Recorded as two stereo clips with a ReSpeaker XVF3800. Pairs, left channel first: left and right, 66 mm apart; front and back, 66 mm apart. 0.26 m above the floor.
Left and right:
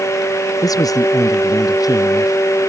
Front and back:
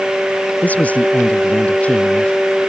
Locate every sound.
0.6 s a man speaking: 65° left; by 2.4 s 70° left